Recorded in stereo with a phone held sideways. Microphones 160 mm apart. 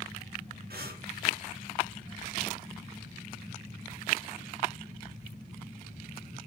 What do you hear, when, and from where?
0.7 s breathing: 80° right, 3 m